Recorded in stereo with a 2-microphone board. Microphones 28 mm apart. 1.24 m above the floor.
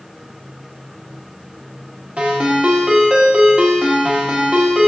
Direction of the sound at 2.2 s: 45° right (ahead or behind).